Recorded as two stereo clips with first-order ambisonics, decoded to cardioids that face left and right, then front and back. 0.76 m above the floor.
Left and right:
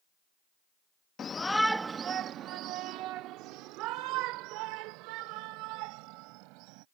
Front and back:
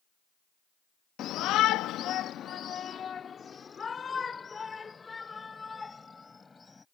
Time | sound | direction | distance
1.2 | a shout | 35° left | ?